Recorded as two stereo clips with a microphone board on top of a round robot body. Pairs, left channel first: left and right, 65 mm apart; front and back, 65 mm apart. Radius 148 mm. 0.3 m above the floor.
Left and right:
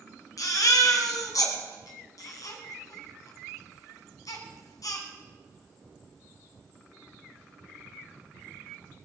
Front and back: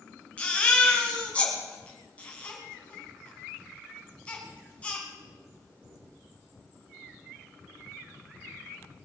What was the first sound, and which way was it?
A baby crying, 70° left.